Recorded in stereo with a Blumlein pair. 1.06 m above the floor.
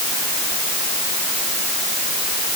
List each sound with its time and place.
Only background noise.